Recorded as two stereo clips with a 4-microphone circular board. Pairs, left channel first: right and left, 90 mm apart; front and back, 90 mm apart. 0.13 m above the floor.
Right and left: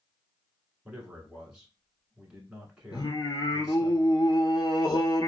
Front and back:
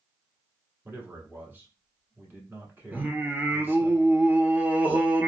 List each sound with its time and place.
0.8 s a man speaking: 155° left, 1.1 m
2.9 s singing: 115° right, 0.7 m